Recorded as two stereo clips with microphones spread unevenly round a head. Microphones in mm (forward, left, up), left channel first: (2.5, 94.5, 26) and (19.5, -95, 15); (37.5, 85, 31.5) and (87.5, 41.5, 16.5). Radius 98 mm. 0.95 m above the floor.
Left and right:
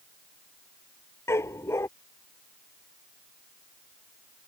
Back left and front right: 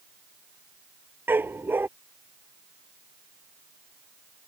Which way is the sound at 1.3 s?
20° left.